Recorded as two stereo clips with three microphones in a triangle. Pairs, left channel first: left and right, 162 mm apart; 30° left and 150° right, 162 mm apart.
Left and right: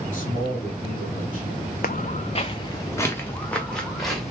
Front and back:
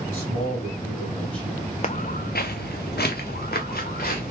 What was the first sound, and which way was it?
A man speaking, 110° left.